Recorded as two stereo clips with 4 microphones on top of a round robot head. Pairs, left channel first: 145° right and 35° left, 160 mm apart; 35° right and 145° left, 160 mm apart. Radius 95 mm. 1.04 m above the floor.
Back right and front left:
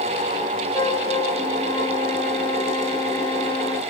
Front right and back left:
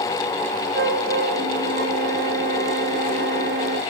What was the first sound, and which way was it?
A flute, 150° left.